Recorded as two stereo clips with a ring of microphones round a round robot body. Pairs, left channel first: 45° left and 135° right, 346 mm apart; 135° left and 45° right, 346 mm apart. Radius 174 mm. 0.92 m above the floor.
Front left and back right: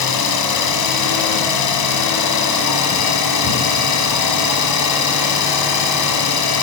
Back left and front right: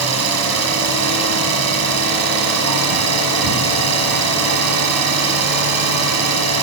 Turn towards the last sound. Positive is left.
turn(degrees=5)